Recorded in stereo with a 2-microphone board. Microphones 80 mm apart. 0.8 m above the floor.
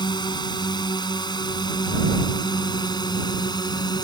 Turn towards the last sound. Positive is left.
turn(degrees=60)  # may be behind; listen again after turning